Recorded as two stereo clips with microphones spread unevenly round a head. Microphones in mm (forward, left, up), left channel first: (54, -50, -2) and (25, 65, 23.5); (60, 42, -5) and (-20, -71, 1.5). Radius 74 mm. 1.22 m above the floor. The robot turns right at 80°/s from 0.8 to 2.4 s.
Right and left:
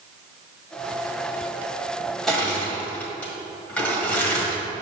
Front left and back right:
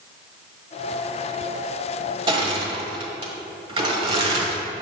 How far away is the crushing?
About 1.5 m.